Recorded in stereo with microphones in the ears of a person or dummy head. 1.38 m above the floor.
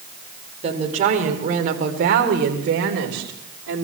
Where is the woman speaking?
30° right (ahead or behind), 4 m; by 3.9 s 65° right (ahead or behind), 4 m.